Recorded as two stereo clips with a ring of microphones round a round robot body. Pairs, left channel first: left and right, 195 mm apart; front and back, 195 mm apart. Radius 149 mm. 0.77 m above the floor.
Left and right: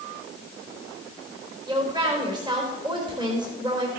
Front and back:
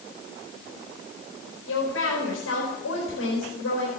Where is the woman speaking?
25° right, 4 m.